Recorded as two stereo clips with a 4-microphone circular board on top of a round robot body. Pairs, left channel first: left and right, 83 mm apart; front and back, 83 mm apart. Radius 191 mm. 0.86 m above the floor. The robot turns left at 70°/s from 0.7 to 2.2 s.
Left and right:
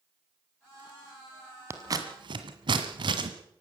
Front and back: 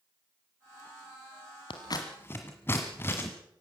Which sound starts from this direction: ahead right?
Scissors, at 1.7 s.